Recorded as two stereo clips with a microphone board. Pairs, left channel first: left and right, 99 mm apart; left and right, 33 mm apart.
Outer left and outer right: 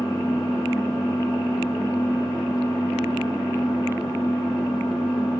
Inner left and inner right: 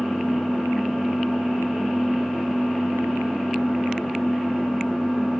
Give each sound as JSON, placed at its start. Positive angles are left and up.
{"t": 0.0, "sound": "an engine running", "side_deg": 5, "distance_m": 10.0}